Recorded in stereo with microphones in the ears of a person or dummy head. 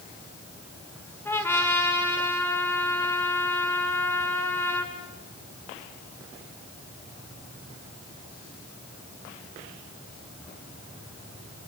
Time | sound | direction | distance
1.2 | a trumpet | 10° left (ahead or behind) | 1.9 m